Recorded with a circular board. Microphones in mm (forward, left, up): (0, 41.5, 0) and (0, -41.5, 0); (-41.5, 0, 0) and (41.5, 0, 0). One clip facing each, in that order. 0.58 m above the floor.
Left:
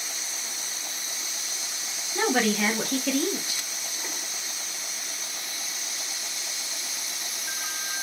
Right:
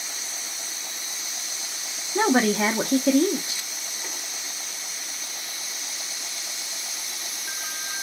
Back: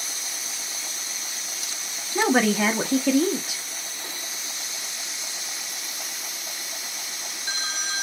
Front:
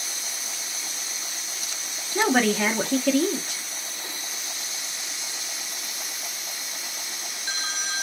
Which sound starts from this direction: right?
A woman speaking, at 2.1 s.